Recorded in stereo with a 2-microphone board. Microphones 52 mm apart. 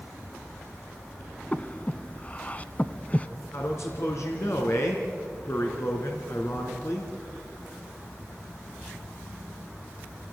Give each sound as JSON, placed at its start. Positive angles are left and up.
{"t": 1.5, "sound": "breathing", "side_deg": 30, "distance_m": 0.7}
{"t": 3.5, "sound": "a man speaking", "side_deg": 65, "distance_m": 3.0}